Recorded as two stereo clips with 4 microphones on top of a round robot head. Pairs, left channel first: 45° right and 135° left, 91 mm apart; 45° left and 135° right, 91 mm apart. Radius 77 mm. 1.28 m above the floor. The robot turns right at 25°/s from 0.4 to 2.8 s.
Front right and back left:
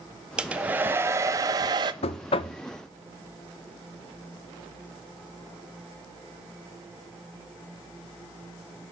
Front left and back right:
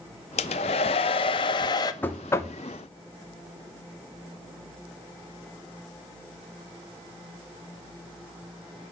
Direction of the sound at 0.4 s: 55° left.